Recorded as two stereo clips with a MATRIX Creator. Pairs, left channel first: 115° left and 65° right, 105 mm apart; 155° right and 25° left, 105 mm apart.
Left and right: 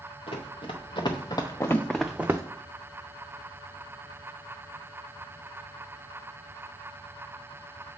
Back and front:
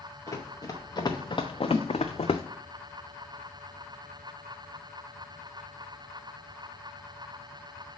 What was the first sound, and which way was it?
Running footsteps, 140° left.